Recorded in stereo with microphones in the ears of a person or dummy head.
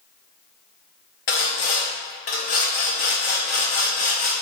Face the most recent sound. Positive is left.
turn(degrees=45)  # may be behind; listen again after turning